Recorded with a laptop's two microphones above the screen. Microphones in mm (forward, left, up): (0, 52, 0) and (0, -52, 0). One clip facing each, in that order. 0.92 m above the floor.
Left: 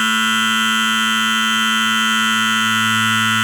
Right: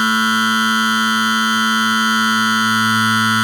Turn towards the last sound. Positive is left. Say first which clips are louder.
# right 2 dB
turn(degrees=-15)  # may be behind; listen again after turning